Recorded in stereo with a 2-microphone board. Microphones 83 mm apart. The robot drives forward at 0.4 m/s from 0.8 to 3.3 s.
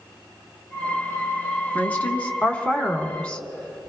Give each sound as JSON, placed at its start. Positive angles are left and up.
{"t": 1.8, "sound": "a woman speaking", "side_deg": 20, "distance_m": 1.5}